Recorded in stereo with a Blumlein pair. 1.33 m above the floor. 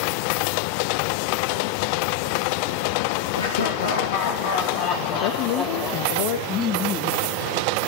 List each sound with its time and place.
3.3 s laughter: 70° left, 2.5 m; by 6.1 s 20° left, 2.5 m
5.1 s a woman speaking: 45° left, 1.8 m
6.5 s laughter: 30° left, 1.0 m